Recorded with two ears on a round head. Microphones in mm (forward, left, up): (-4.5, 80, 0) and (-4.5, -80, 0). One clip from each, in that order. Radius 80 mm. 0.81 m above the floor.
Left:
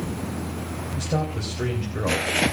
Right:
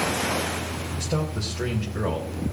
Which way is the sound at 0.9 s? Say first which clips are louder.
Left 3 dB; 5° right (ahead or behind).